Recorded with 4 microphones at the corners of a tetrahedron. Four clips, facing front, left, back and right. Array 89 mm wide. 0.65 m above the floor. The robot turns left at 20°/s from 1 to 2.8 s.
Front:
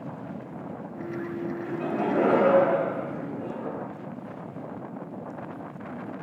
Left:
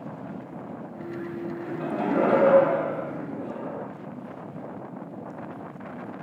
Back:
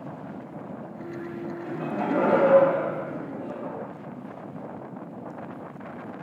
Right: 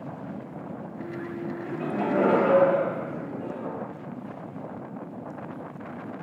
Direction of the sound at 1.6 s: 155° left.